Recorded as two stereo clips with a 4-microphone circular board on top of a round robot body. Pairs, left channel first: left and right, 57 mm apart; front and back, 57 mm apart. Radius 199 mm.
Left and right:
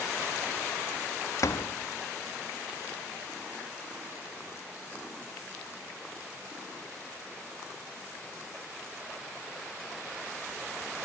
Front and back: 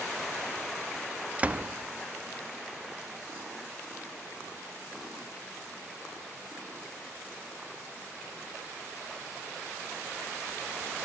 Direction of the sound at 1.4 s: 115° left.